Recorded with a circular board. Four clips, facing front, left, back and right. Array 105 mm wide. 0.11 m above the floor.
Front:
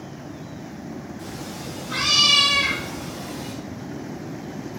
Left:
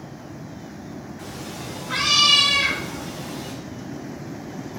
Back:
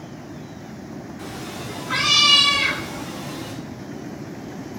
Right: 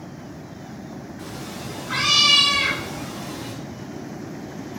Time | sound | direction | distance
1.2 | a cat meowing | 155° right | 4.5 m